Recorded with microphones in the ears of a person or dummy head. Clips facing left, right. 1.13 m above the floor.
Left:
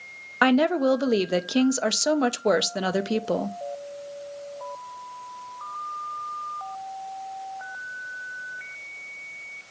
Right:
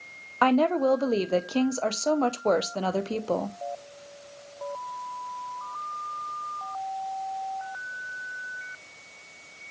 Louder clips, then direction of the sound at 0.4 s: Left 2 dB; 20° left (ahead or behind).